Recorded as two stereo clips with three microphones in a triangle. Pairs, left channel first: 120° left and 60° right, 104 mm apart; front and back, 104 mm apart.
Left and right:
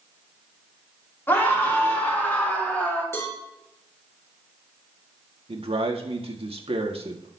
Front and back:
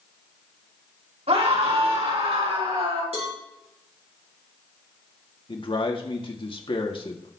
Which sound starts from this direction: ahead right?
A man speaking, at 5.5 s.